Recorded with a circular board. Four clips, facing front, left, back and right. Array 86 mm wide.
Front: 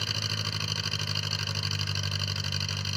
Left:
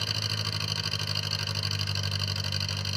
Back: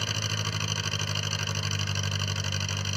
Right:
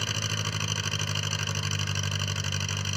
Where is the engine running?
125° right, 1.0 m.